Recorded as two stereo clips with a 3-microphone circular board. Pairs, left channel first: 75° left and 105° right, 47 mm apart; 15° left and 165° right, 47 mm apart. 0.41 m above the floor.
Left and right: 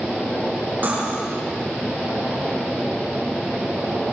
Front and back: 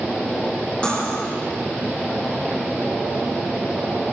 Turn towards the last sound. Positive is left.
turn(degrees=-50)